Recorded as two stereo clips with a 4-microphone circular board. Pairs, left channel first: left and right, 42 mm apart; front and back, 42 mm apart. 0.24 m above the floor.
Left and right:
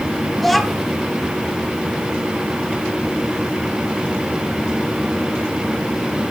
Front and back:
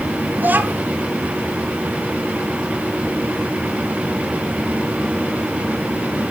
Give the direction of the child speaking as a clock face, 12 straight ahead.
6 o'clock.